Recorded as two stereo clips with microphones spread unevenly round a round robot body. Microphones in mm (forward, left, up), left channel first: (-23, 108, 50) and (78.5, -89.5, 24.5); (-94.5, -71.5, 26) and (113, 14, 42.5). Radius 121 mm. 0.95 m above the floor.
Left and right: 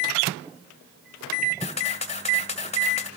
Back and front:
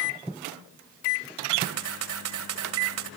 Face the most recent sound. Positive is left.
turn(degrees=55)